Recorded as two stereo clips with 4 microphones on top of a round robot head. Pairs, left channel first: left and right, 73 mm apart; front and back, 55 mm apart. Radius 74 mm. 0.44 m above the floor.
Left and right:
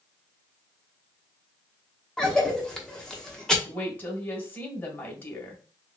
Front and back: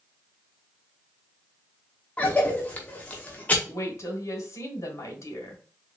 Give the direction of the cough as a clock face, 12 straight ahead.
11 o'clock.